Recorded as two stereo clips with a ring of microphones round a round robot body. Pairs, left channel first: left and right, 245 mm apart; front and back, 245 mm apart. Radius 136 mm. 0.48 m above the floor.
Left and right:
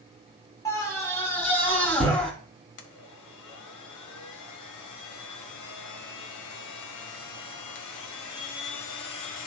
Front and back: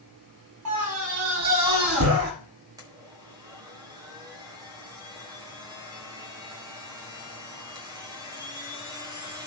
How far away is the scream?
About 6 m.